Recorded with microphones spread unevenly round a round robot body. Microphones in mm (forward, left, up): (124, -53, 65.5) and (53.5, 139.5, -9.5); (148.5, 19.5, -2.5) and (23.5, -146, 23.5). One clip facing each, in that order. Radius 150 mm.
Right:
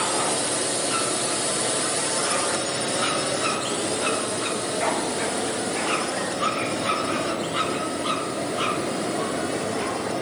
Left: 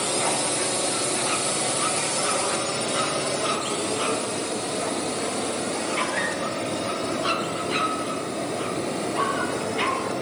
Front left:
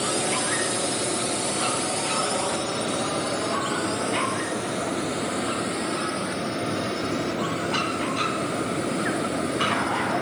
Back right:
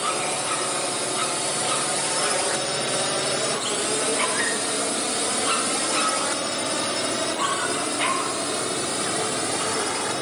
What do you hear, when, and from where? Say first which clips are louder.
0.0 s a drone: even, front left 2 dB; 55° left; by 10.2 s 160° right